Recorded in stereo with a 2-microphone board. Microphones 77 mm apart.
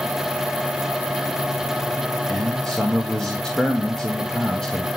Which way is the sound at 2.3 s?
10° left (ahead or behind).